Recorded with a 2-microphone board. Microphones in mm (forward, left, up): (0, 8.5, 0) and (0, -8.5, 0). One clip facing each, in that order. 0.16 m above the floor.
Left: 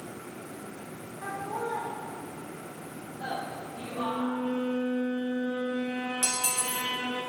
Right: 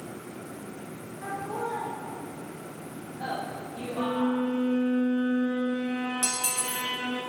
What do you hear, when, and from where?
1.2 s laughter: 15° left (ahead or behind), 2 m; by 4.4 s 50° right (ahead or behind), 5 m
4.0 s a violin: 40° right (ahead or behind), 0.6 m
6.2 s cutlery clinking: 10° left (ahead or behind), 2.5 m